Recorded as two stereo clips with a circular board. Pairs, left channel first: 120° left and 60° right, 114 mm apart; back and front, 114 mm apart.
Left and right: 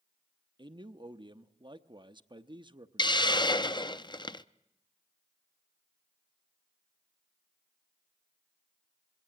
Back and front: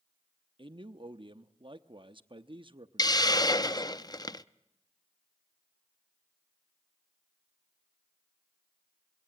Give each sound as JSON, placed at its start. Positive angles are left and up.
{"t": 0.6, "sound": "a man speaking", "azimuth_deg": -25, "distance_m": 0.8}
{"t": 3.0, "sound": "a hiss", "azimuth_deg": 145, "distance_m": 0.5}